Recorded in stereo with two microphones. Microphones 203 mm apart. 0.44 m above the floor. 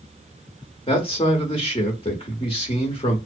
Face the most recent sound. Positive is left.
turn(degrees=25)  # may be behind; listen again after turning